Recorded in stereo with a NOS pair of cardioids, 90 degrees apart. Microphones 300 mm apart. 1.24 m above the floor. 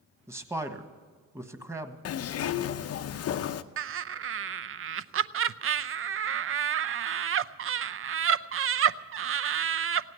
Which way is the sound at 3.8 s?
45° right.